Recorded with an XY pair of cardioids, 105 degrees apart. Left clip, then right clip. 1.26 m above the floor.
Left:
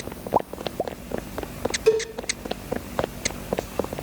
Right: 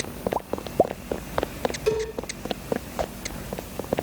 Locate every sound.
1.9 s a cowbell: 30° left, 7.5 m